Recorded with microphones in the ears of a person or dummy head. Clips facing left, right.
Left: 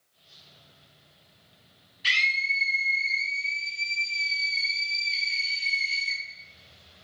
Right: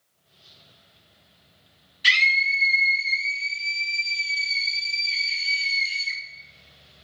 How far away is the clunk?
I don't hear a clunk.